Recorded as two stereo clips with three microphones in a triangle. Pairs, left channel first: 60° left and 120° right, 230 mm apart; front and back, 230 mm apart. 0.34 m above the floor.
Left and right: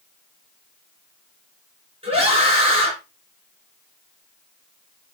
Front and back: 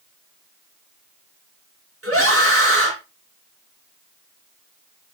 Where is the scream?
175° left, 4.5 m.